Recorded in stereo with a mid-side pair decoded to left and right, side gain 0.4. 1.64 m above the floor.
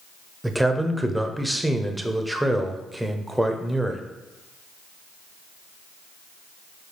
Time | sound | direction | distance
0.4 | a man speaking | 5° right | 0.6 m